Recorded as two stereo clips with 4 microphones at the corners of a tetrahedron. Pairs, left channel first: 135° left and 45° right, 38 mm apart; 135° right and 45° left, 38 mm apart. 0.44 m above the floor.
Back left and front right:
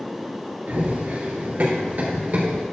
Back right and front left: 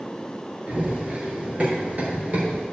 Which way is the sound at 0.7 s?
10° right.